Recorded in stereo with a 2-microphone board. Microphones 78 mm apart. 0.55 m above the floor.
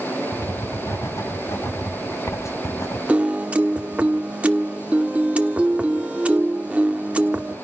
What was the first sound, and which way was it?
Writing, 45° left (ahead or behind).